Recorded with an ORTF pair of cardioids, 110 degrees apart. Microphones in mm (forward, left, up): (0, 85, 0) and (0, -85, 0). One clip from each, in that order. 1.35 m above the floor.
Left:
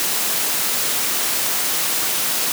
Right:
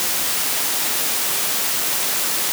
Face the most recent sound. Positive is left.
No sound to turn to.